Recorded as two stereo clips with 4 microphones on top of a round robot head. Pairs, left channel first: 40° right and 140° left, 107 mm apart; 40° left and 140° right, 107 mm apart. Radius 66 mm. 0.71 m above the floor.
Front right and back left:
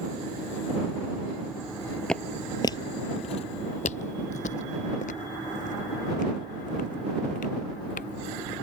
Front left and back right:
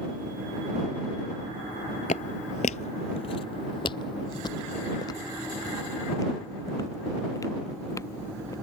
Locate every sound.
2.1 s footsteps: 40° left; by 8.5 s 25° right